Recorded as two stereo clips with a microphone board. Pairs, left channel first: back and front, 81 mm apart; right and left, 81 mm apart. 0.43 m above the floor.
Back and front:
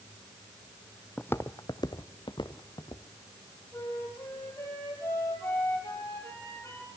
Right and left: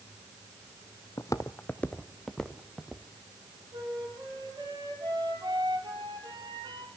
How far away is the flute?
About 6 m.